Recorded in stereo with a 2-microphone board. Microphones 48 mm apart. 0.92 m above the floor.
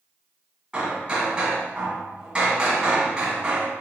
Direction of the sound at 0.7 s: 25° right (ahead or behind).